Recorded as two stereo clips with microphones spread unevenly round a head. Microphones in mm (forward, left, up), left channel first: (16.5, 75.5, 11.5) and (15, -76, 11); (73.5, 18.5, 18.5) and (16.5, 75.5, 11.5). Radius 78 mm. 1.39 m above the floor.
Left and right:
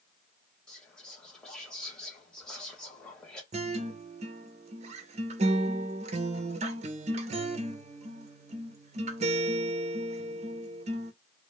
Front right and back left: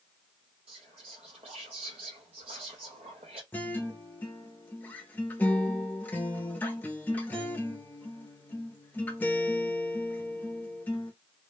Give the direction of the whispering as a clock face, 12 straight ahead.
6 o'clock.